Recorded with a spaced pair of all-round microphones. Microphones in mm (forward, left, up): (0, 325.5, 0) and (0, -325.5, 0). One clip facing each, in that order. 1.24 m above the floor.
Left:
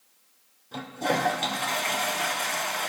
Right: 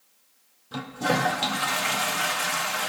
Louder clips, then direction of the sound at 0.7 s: Right 2 dB; 45° right (ahead or behind).